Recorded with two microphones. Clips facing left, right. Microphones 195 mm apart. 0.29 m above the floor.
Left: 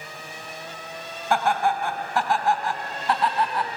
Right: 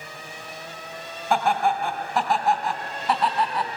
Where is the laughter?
Centre (ahead or behind), 2.5 m.